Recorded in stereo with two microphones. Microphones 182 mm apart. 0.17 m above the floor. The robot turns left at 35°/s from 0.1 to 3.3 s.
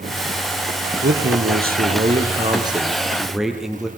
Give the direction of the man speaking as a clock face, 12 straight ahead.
3 o'clock.